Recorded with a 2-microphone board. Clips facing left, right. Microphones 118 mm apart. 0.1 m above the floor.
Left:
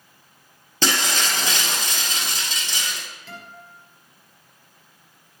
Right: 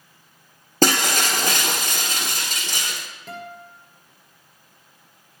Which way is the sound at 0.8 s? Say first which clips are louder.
Right 5 dB; 55° right (ahead or behind).